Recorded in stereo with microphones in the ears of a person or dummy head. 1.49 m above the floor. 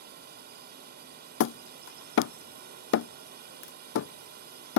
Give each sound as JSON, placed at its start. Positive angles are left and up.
{"t": 0.0, "sound": "a drone", "side_deg": -50}
{"t": 1.4, "sound": "hammering", "side_deg": 70}